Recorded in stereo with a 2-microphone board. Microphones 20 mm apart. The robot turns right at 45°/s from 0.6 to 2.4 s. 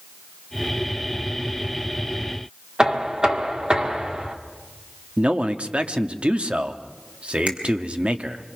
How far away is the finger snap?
About 4 m.